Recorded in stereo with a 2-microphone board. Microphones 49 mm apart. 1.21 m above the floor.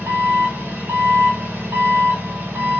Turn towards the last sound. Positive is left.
turn(degrees=-45)  # may be behind; listen again after turning